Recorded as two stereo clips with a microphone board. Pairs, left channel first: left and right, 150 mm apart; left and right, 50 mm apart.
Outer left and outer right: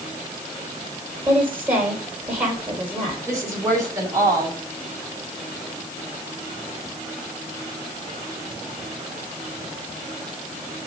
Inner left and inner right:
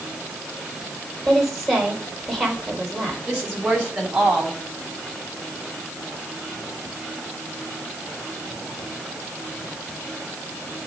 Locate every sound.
1.2 s a woman speaking: 10° right (ahead or behind), 4.5 m
3.3 s a woman speaking: 20° right (ahead or behind), 4.5 m